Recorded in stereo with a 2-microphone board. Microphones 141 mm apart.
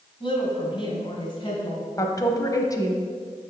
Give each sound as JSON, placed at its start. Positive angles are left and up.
{"t": 0.2, "sound": "a woman speaking", "side_deg": 40, "distance_m": 2.0}
{"t": 2.0, "sound": "a woman speaking", "side_deg": 25, "distance_m": 1.1}